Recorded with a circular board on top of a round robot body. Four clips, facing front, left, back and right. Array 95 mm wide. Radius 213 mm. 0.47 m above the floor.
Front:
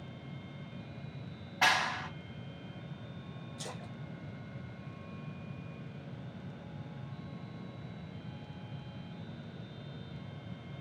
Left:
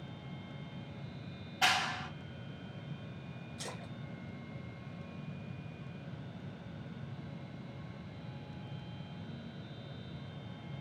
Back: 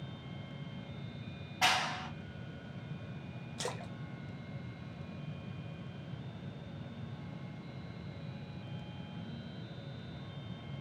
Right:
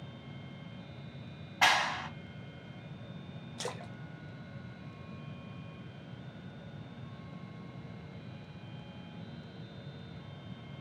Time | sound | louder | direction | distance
1.6 | a clap | right 4 dB, front 2 dB | 65° right | 1.7 m
3.6 | a splash | right 6 dB, back 6 dB | 130° right | 0.7 m